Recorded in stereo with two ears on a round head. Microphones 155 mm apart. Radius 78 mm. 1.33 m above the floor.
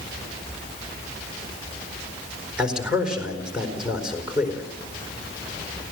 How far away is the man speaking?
About 4.5 m.